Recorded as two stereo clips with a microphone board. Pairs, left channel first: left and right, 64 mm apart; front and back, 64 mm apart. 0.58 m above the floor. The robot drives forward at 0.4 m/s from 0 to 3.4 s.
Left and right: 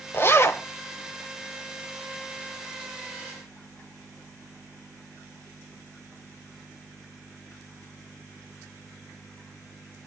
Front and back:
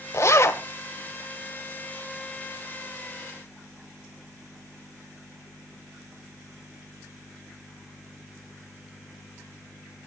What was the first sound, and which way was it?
A zipper, 40° left.